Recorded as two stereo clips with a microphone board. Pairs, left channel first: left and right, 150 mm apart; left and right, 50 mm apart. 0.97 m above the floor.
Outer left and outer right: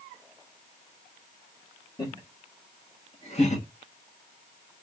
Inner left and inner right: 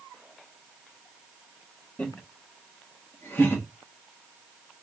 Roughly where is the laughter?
Left.